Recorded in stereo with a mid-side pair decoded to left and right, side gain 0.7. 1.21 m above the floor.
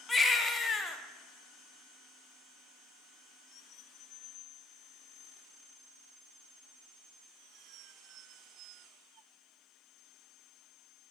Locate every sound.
0.1 s a baby crying: 20° left, 0.6 m